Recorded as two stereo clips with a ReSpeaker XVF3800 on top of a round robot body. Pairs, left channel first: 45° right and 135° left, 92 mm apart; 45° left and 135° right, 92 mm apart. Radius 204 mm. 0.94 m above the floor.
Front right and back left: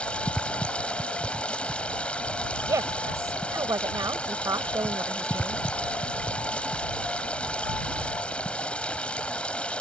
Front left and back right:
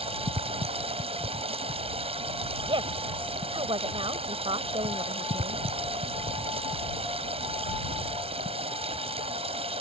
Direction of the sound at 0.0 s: 125° right.